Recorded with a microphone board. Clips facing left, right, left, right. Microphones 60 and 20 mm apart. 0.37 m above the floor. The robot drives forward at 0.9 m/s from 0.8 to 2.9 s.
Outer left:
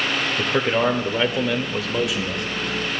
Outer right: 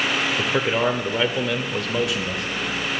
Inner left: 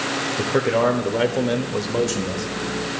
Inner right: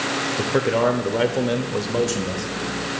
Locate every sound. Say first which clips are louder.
0.4 s a man speaking: outer left 3 dB, inner left 1 dB; centre (ahead or behind), 0.9 m